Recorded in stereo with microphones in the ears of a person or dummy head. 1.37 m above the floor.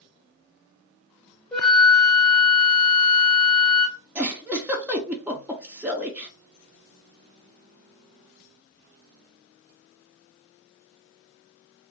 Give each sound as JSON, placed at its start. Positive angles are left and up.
{"t": 1.5, "sound": "a flute", "side_deg": 5, "distance_m": 0.6}
{"t": 4.2, "sound": "a giggle", "side_deg": -10, "distance_m": 0.5}